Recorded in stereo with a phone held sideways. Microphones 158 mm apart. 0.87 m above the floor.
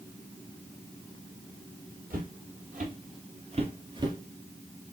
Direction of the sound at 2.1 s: 60° right (ahead or behind).